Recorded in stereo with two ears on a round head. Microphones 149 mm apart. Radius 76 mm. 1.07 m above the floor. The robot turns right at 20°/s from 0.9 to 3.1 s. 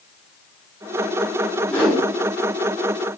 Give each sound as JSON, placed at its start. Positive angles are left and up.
{"t": 1.7, "sound": "a whoosh", "side_deg": 10, "distance_m": 1.7}